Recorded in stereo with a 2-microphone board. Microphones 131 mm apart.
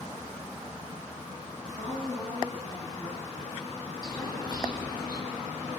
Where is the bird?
30° left (ahead or behind), 6 m.